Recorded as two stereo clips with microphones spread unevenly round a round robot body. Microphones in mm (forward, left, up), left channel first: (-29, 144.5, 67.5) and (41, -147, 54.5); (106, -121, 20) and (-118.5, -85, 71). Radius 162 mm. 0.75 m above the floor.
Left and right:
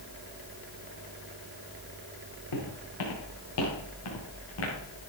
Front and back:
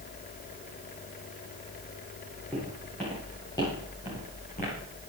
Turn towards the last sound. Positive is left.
turn(degrees=55)